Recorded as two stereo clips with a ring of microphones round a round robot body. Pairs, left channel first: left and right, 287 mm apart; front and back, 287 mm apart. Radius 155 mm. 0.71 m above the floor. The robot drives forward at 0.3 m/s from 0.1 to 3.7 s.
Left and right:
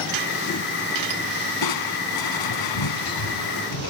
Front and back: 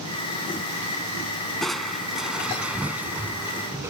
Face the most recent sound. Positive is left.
turn(degrees=100)